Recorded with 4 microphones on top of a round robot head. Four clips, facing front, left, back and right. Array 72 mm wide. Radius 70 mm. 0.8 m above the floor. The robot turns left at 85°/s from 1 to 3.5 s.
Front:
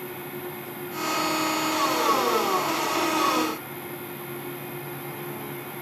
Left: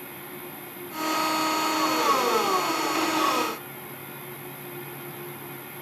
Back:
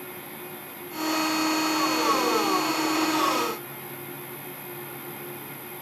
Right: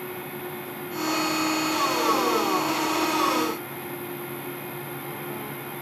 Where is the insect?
85° left, 4.5 m; by 5.8 s 125° right, 4.5 m.